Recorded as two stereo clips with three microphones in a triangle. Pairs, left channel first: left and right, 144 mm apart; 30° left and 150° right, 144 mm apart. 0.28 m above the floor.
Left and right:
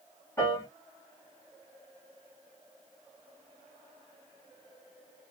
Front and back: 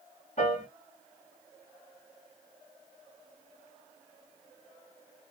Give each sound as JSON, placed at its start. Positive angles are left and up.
{"t": 0.4, "sound": "a piano", "azimuth_deg": 25, "distance_m": 2.0}